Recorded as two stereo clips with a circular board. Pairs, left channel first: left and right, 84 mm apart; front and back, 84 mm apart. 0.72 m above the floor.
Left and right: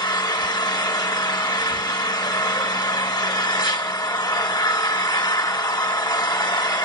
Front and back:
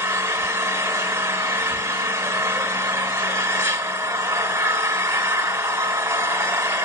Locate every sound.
0.0 s an engine running: 125° left, 1.3 m